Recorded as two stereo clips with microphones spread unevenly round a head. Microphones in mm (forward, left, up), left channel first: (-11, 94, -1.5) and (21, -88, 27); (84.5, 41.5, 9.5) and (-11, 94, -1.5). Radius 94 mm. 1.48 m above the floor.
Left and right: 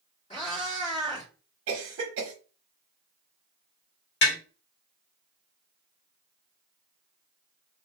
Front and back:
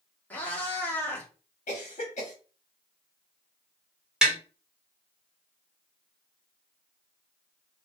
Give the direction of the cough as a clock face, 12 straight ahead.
2 o'clock.